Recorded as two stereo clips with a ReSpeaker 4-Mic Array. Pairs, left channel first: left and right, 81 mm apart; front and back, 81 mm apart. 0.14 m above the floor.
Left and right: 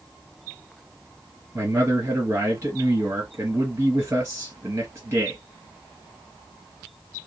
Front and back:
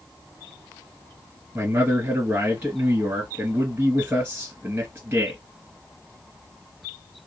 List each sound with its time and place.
1.6 s a man speaking: 130° right, 2 m